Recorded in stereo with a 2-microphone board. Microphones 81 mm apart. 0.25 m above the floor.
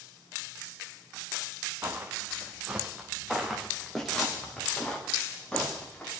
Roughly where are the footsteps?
Right.